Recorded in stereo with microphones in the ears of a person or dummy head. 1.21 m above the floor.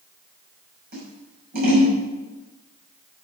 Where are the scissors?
55° right (ahead or behind), 6.5 m.